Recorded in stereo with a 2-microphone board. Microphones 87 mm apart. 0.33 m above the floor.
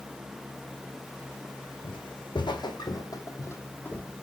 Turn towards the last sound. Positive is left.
turn(degrees=10)  # may be behind; listen again after turning